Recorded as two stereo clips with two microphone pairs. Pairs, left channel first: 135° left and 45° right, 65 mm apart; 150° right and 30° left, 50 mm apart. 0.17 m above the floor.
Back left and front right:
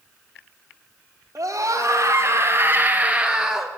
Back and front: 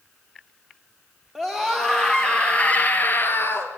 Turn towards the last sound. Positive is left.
turn(degrees=-130)